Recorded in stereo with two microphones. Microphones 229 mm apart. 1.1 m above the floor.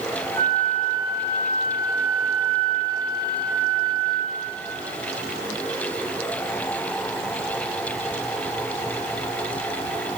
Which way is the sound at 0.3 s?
5° left (ahead or behind).